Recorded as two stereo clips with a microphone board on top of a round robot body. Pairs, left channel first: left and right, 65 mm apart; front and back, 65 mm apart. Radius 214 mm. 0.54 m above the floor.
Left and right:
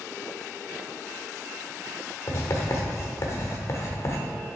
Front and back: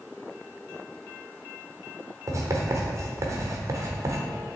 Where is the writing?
140° left, 1.0 m.